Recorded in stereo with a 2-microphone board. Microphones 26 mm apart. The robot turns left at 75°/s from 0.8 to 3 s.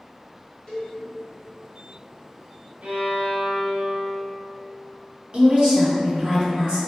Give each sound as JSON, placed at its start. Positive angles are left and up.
{"t": 0.7, "sound": "a cowbell", "side_deg": 35, "distance_m": 1.8}
{"t": 2.8, "sound": "a violin", "side_deg": -70, "distance_m": 0.9}
{"t": 5.3, "sound": "a woman speaking", "side_deg": -45, "distance_m": 1.9}